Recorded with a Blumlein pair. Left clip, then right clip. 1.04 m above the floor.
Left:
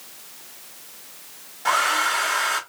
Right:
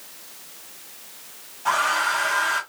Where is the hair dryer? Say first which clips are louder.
Left 1 dB; 30° left, 2.5 m.